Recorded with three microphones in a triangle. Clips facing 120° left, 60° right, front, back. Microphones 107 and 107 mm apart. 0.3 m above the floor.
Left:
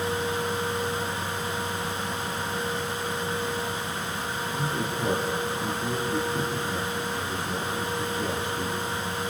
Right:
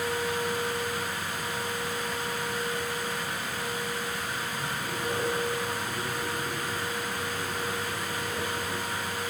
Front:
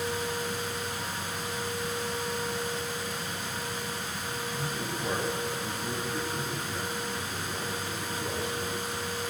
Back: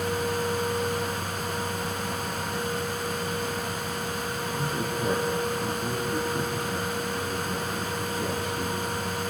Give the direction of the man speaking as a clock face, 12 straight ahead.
7 o'clock.